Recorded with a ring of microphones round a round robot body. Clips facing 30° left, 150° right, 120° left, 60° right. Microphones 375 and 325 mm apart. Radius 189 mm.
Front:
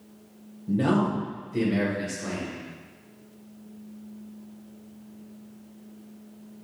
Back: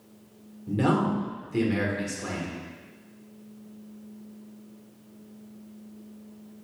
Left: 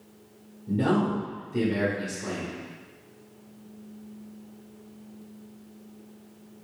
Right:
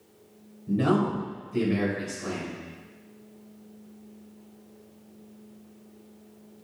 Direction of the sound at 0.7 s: 155° right.